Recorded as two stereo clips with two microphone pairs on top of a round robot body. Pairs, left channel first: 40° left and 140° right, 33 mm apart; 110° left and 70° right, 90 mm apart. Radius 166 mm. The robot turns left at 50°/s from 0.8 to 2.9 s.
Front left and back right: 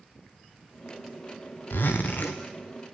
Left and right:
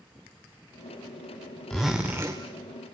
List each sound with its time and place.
1.7 s a zipper: 15° left, 0.5 m; by 2.4 s 25° right, 0.5 m